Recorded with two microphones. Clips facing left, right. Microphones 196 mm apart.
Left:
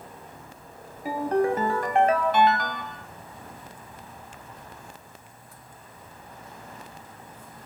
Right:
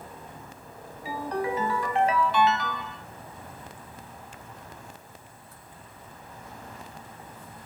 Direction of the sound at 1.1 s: 50° left (ahead or behind).